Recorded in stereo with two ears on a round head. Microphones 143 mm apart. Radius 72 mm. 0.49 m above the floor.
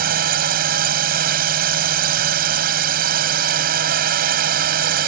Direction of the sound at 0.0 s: 60° right (ahead or behind).